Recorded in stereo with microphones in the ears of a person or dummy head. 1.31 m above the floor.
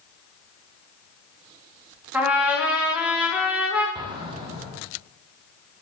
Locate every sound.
2.1 s a trumpet: 10° right (ahead or behind), 1.3 m
4.0 s an explosion: 25° right (ahead or behind), 1.0 m